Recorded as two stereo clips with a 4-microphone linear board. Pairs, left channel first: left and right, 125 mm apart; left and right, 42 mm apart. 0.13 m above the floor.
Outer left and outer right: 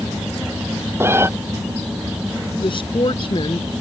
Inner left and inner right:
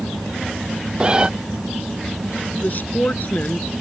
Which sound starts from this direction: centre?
A cat meowing, at 1.0 s.